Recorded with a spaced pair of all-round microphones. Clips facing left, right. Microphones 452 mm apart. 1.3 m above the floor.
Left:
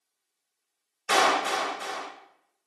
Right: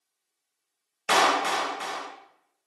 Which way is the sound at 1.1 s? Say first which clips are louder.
Even; 80° right.